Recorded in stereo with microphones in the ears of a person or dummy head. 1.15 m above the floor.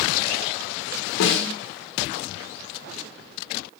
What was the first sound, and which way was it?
A snare drum, 65° left (ahead or behind).